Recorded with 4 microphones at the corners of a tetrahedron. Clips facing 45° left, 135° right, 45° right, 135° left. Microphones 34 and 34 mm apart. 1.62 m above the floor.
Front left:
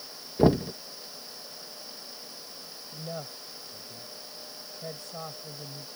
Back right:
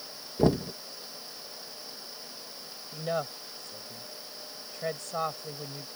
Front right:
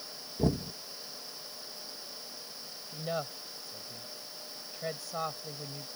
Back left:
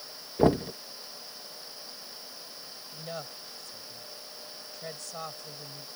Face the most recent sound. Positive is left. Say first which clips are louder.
# back right 7 dB, front right 5 dB
turn(degrees=-120)